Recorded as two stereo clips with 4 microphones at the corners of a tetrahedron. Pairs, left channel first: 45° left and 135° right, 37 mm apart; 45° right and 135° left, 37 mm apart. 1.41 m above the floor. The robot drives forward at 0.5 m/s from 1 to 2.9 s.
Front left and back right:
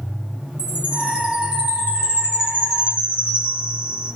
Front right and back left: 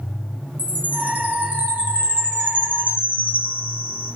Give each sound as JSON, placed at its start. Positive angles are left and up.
{"t": 0.6, "sound": "a chime", "azimuth_deg": 170, "distance_m": 3.5}